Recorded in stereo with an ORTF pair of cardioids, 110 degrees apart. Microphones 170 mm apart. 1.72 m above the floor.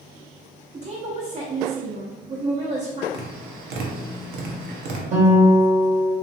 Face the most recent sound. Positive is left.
turn(degrees=-45)